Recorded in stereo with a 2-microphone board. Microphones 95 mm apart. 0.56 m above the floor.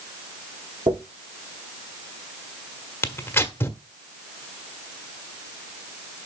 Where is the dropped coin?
75° right (ahead or behind), 4.5 m.